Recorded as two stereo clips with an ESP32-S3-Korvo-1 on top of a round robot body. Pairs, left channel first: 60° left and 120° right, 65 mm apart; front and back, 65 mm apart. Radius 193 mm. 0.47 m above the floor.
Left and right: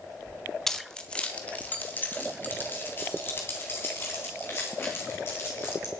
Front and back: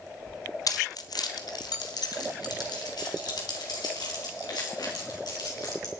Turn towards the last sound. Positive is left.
turn(degrees=10)